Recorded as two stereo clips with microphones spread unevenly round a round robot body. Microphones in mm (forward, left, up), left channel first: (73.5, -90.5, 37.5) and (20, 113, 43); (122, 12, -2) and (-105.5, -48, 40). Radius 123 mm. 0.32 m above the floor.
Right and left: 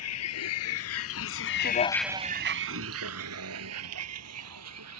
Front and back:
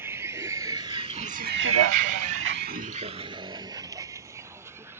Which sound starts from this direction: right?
A vehicle, at 0.0 s.